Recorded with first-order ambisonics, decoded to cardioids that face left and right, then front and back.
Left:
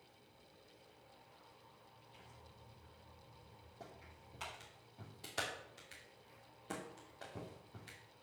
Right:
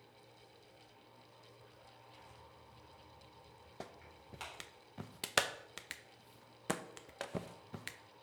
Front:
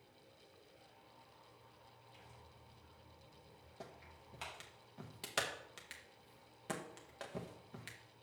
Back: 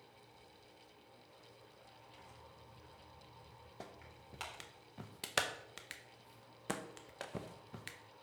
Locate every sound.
2.1 s tearing paper: 155° right, 3.5 m
3.8 s a clap: 105° right, 0.7 m